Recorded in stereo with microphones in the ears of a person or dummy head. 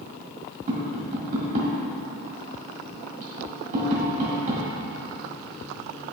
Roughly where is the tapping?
Right.